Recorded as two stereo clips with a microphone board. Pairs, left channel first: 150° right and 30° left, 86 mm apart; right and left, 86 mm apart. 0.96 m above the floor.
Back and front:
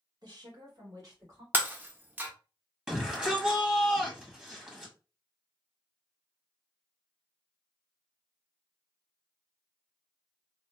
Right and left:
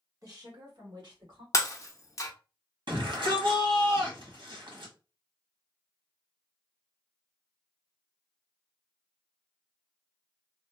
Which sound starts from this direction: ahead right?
Breaking glass, at 1.5 s.